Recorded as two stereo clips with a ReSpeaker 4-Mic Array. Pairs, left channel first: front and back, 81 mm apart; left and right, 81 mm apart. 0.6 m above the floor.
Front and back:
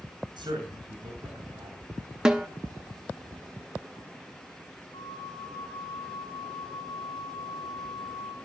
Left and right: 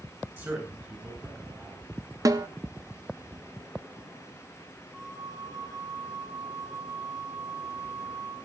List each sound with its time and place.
0.4 s a man speaking: 155° right, 8 m
2.2 s a snare drum: 100° right, 1.3 m
4.9 s a flute: straight ahead, 3.5 m